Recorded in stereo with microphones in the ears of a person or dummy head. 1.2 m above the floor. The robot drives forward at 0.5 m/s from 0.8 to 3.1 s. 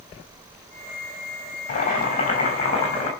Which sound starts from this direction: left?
Boiling, at 1.7 s.